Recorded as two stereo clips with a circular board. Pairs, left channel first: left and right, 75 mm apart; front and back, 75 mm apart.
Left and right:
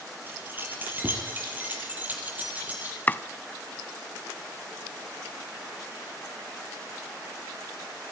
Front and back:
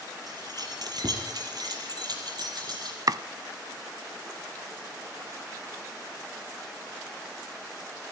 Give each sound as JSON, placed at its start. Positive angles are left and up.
{"t": 0.3, "sound": "keys jangling", "azimuth_deg": -150, "distance_m": 5.0}
{"t": 3.1, "sound": "chopping", "azimuth_deg": 155, "distance_m": 0.6}